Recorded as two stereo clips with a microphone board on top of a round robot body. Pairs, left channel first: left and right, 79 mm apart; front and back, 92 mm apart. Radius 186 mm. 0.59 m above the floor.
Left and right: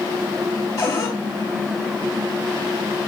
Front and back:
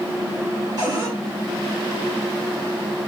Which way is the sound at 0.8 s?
135° left.